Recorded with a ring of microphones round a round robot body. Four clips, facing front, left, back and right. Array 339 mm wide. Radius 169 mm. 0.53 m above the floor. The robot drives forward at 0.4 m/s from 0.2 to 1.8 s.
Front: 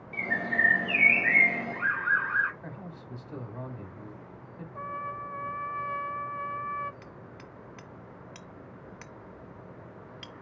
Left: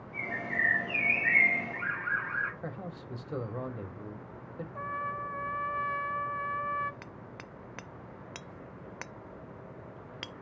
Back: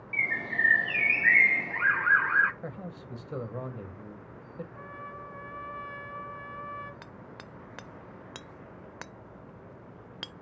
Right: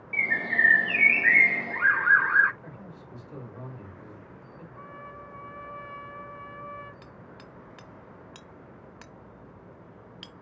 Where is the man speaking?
130° left, 2.5 m.